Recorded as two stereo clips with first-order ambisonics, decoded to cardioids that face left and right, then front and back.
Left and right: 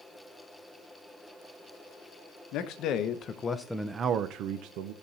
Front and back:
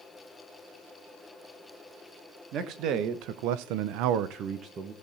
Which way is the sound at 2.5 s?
130° left.